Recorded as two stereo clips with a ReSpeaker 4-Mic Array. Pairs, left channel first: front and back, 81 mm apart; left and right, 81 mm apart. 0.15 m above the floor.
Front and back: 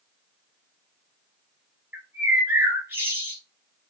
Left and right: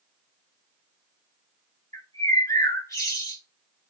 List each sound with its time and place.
1.9 s a bird: 125° left, 1.1 m